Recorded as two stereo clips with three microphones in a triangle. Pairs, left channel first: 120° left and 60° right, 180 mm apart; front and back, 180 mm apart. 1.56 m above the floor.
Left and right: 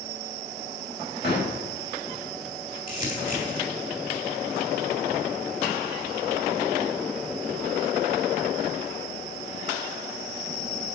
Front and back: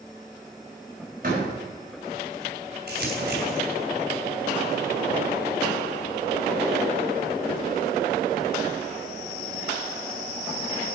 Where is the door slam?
145° left, 4.5 m.